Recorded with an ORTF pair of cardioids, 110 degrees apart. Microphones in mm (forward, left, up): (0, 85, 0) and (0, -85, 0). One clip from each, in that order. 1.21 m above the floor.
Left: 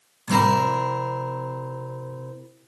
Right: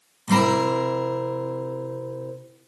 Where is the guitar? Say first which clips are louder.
Left 1 dB; 5° right, 0.8 m.